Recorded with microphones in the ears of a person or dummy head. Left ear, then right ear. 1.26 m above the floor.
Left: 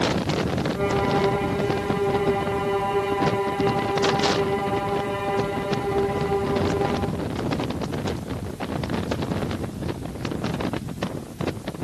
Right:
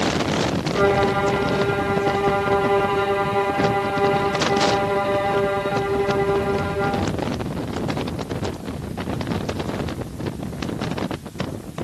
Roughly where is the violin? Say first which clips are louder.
Right 5 dB; right.